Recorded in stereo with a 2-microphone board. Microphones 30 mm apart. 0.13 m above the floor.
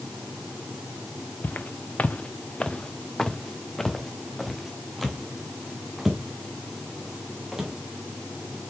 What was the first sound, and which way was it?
Footsteps, 85° left.